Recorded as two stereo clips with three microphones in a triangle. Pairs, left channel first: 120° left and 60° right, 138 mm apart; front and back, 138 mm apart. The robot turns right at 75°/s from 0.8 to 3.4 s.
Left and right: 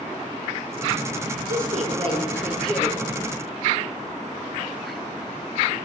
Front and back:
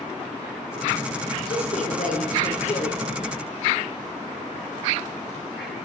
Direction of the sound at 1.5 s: 55° right.